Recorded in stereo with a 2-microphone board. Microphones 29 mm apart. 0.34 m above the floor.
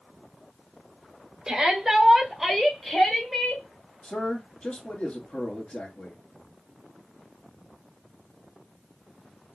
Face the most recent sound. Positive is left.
turn(degrees=35)  # may be behind; listen again after turning